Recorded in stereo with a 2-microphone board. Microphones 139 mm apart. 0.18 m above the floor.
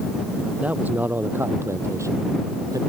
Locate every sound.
0.6 s a man speaking: 10° right (ahead or behind); by 2.8 s 25° right (ahead or behind)